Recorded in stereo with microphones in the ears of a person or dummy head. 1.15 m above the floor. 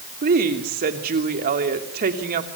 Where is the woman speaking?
45° right (ahead or behind), 2.5 m.